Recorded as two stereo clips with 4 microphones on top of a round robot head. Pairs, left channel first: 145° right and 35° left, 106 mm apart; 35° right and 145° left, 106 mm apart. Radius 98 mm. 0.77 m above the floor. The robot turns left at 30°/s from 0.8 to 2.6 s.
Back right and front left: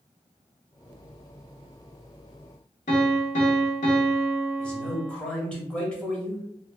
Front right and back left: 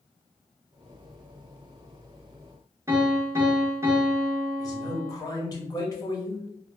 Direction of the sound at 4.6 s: 70° right.